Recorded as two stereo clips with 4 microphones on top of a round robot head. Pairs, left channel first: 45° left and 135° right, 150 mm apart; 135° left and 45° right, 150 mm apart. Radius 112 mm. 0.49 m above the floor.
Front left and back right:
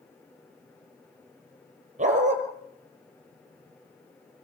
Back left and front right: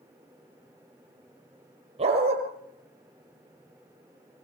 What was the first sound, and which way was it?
A dog barking, 95° right.